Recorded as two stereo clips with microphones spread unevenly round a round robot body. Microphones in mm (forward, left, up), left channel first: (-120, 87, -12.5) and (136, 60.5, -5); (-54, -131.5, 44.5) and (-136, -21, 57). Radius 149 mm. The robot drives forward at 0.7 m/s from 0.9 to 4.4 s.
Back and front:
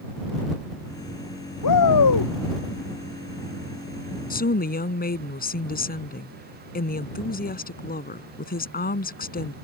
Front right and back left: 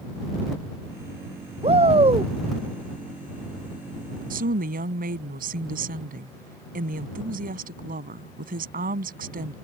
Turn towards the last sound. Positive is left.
turn(degrees=120)